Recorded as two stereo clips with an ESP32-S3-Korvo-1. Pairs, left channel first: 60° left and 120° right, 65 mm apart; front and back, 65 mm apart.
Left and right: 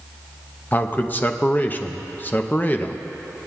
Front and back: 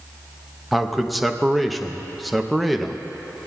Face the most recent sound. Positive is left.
turn(degrees=90)